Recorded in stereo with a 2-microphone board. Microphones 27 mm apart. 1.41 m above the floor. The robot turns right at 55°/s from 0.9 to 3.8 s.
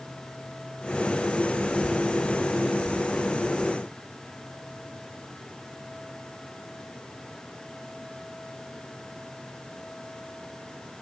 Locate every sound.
Only background noise.